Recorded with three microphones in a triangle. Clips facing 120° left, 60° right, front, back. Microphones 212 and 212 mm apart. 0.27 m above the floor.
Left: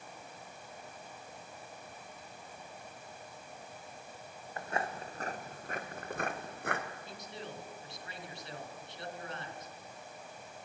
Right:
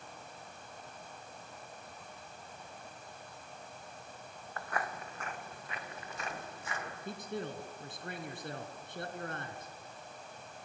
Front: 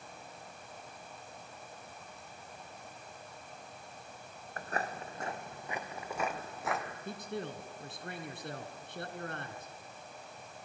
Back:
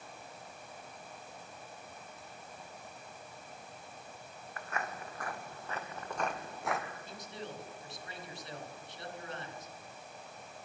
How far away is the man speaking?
About 3 m.